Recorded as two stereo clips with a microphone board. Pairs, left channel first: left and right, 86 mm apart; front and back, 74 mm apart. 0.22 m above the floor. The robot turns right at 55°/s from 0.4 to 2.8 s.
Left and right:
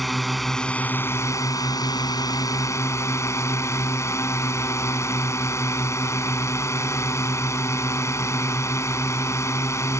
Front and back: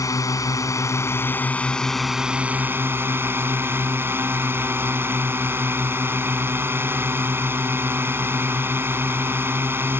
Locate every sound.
0.0 s a drone: straight ahead; by 10.0 s 135° left